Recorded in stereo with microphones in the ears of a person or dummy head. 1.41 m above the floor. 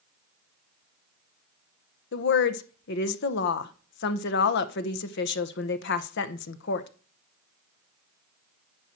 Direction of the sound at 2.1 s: 65° left (ahead or behind).